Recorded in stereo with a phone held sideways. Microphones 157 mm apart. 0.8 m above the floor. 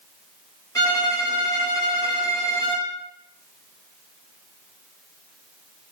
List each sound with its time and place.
0.8 s a violin: 25° left (ahead or behind), 0.7 m